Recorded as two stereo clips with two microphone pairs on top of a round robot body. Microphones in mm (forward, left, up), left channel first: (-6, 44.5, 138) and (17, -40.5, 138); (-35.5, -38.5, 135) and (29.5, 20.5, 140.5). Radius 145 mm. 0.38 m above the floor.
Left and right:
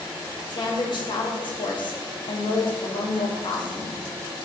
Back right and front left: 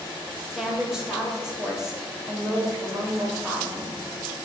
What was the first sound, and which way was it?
A woman speaking, 130° left.